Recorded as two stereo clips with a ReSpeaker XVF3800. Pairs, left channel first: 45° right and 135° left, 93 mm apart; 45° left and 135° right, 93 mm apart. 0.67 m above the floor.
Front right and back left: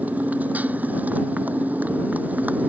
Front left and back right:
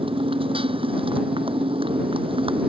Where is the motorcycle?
150° right.